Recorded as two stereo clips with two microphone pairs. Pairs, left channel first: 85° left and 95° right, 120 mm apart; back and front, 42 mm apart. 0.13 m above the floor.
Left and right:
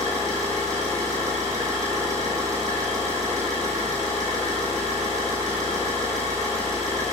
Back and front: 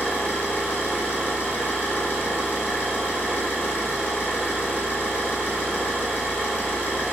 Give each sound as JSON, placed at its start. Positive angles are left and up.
{"t": 0.0, "sound": "an engine running", "azimuth_deg": -155, "distance_m": 1.6}